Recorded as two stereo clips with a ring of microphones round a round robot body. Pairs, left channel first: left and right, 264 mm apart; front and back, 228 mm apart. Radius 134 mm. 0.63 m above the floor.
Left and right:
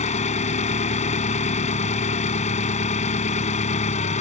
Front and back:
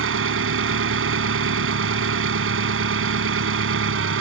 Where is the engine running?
155° left.